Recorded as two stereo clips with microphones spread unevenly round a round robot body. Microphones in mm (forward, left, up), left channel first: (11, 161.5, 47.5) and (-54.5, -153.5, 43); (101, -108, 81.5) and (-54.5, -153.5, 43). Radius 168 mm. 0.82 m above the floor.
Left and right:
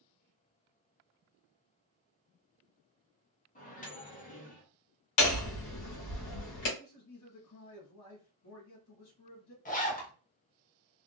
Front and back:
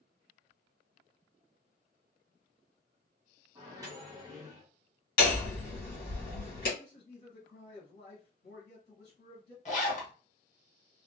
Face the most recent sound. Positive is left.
turn(degrees=35)